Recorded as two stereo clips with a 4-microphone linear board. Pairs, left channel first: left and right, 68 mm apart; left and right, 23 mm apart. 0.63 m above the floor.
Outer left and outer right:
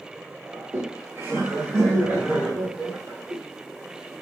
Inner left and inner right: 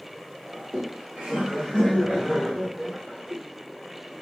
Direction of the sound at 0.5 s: 50° right (ahead or behind).